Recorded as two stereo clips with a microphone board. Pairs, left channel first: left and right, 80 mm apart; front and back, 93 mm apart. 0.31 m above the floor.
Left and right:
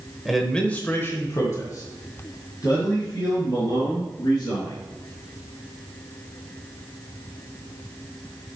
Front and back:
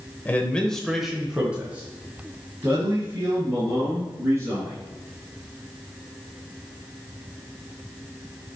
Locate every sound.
0.2 s a man speaking: 10° right, 1.0 m; by 4.8 s 120° left, 4 m